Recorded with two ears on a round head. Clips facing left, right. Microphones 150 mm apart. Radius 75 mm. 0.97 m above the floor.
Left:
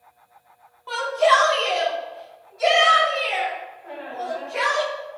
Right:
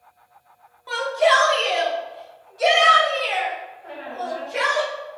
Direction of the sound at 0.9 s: 10° right (ahead or behind).